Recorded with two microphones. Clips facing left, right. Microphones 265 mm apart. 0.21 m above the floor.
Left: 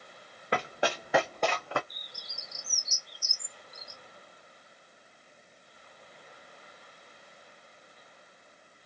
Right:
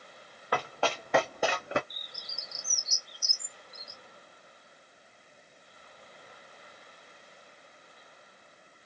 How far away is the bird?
About 1.4 m.